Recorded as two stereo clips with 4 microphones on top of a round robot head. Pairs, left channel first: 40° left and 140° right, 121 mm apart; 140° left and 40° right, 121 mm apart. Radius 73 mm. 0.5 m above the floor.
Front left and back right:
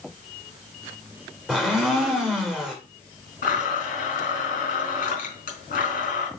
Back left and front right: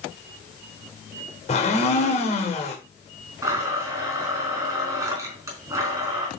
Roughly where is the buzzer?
I don't hear a buzzer.